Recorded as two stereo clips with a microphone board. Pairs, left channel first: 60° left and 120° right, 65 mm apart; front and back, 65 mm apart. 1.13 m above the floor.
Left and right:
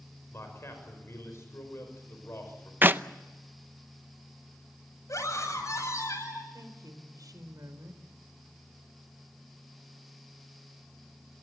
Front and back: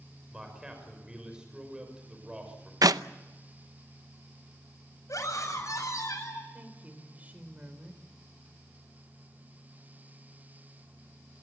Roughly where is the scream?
Ahead left.